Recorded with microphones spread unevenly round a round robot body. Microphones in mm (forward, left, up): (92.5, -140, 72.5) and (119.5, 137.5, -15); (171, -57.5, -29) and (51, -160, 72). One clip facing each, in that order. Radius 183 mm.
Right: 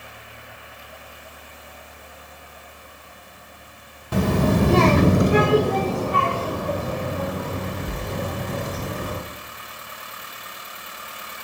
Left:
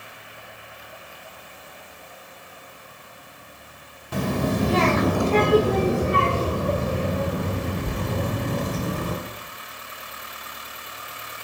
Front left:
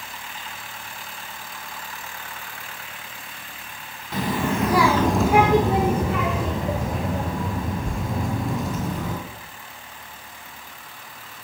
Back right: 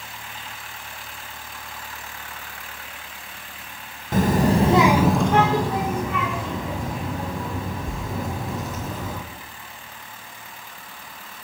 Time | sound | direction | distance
4.1 | a child speaking | 80° right | 0.8 m